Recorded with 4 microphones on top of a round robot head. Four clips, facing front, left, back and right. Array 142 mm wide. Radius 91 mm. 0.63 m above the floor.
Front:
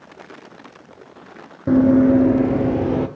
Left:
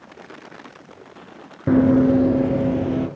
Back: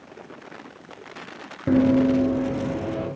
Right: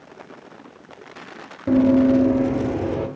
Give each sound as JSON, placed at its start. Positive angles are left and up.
{"t": 1.7, "sound": "running footsteps", "azimuth_deg": 70, "distance_m": 0.6}